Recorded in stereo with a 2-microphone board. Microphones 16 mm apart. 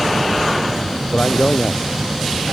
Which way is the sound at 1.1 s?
85° left.